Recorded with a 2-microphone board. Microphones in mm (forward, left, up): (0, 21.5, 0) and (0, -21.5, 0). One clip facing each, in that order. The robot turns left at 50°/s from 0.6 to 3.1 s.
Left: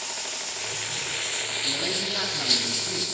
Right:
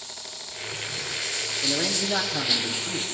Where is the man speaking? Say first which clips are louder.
Right 4 dB; 100° right, 7.5 m; by 3.0 s 170° right, 7.5 m.